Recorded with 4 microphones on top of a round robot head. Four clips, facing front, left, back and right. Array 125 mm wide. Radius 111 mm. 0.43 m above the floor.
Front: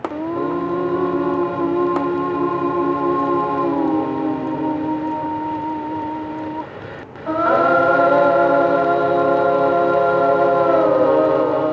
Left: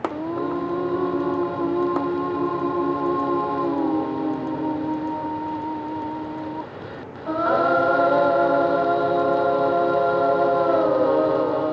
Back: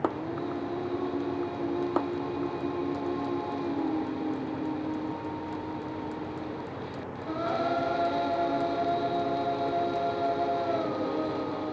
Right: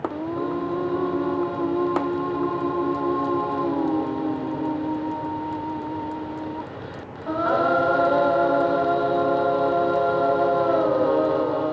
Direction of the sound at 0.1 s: 5° left.